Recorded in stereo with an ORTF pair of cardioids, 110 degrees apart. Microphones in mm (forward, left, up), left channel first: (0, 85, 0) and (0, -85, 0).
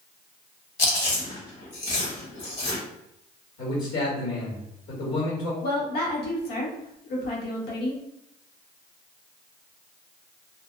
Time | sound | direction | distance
0.8 | chewing | 45° left | 1.2 m
3.6 | a man speaking | 70° left | 1.5 m
5.6 | a woman speaking | 65° left | 1.1 m